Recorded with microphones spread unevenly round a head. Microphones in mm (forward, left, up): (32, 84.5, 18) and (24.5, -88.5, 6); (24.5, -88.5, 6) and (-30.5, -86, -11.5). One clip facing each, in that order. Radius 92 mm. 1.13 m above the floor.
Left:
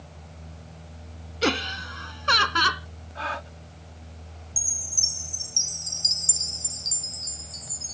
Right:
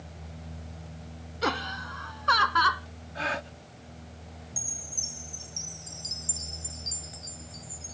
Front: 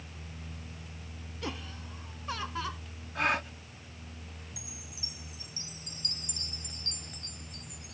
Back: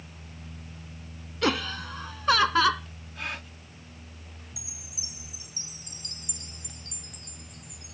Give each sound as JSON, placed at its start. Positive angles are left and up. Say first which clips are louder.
{"t": 1.4, "sound": "laughter", "louder": "left 5 dB, back 13 dB", "azimuth_deg": 145}
{"t": 3.1, "sound": "a gasp", "louder": "right 1 dB, front 7 dB", "azimuth_deg": -30}
{"t": 4.6, "sound": "a chime", "louder": "even, even", "azimuth_deg": 75}